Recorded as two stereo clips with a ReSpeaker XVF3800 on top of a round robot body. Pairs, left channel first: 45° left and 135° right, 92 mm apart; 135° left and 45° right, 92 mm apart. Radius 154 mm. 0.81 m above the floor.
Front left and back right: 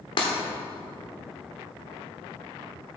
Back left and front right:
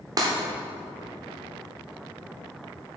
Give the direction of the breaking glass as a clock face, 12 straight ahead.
12 o'clock.